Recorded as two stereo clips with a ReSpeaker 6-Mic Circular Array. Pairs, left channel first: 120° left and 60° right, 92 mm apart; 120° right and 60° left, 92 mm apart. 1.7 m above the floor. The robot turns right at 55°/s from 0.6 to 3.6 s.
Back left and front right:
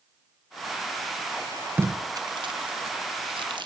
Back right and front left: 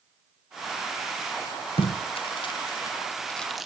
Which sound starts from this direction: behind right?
Tape being pulled, at 1.8 s.